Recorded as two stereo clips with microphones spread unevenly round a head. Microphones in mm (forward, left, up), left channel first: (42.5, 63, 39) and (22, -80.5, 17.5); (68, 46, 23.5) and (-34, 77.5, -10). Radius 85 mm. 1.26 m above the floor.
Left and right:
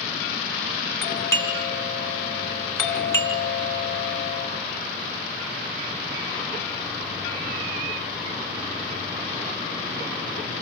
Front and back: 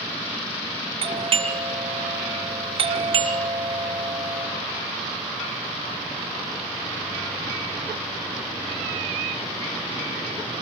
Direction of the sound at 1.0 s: 160° left.